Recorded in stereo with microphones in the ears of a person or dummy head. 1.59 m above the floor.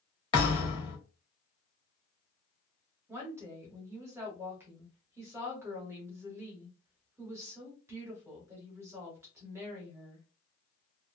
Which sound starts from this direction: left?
A thud, at 0.3 s.